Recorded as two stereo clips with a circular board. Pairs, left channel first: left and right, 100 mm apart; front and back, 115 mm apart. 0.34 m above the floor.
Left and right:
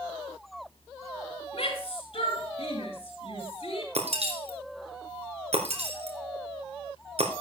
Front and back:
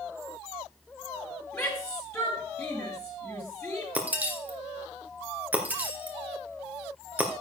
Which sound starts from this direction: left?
A shout, at 1.5 s.